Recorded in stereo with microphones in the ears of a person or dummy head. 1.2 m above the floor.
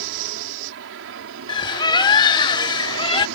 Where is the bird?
30° left (ahead or behind).